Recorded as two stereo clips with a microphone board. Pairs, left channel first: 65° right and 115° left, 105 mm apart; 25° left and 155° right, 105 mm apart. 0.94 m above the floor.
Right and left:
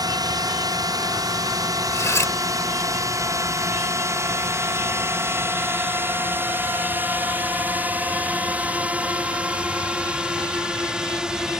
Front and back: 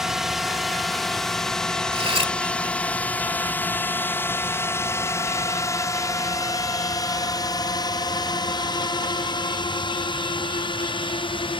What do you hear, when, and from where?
0.0 s a drone: 120° left; by 11.6 s 30° left
1.9 s cutlery clinking: 130° right